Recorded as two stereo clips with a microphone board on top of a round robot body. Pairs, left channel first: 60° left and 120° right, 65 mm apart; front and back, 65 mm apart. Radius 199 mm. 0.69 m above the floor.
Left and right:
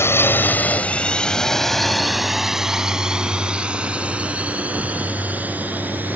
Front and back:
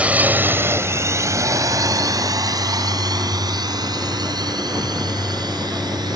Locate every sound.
0.0 s a drone: 110° left; by 6.2 s 175° left